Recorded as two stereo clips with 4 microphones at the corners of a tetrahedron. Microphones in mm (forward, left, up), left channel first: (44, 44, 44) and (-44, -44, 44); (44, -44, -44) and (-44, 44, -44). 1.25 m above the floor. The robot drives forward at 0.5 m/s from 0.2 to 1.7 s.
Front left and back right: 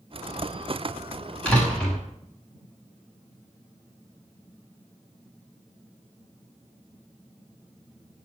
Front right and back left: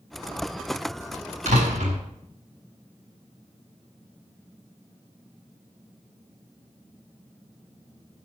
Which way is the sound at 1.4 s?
125° left.